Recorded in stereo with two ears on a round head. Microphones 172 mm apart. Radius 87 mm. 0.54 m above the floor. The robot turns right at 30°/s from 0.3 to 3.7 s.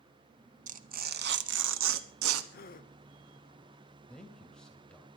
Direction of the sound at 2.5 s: 50° left (ahead or behind).